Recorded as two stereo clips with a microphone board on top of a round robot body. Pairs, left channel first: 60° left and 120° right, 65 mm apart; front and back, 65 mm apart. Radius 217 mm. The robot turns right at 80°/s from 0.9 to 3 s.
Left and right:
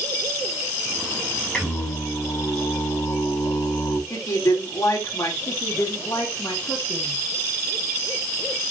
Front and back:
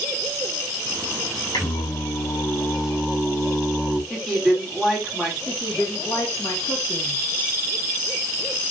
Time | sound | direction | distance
1.5 | singing | 25° right | 7 m
4.1 | a woman speaking | 85° left | 4.5 m
5.5 | a woman speaking | 45° left | 3 m